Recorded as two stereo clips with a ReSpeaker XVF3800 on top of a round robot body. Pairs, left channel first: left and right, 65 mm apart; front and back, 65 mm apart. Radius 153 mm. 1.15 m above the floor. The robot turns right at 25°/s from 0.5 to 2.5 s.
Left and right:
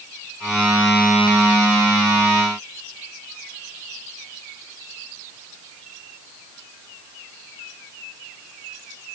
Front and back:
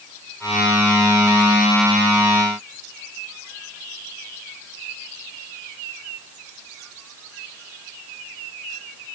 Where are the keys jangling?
No keys jangling in this recording.